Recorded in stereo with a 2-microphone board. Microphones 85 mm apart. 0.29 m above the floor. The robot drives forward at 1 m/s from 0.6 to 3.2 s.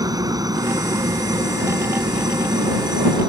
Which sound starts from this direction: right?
A helicopter, at 0.0 s.